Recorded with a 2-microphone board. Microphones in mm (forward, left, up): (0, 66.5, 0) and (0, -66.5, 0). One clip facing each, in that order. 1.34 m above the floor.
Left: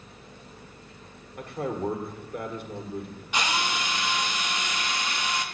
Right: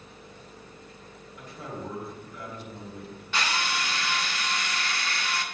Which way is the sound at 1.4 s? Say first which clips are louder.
Left 8 dB; 60° left (ahead or behind).